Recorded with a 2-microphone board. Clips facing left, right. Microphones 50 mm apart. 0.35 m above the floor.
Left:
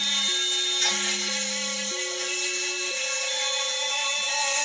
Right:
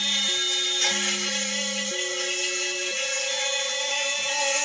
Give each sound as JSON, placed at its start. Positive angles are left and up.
{"t": 0.0, "sound": "an insect", "side_deg": -65, "distance_m": 3.0}